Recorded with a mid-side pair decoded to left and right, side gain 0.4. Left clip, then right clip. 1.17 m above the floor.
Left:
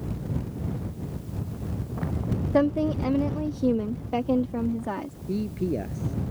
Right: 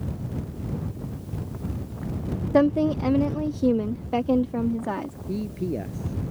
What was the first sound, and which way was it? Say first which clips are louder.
A woman speaking: right 3 dB; 25° right.